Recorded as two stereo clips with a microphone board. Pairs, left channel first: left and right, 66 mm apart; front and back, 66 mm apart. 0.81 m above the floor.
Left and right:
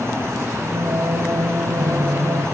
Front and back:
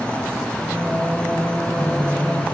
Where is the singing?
90° right, 2 m.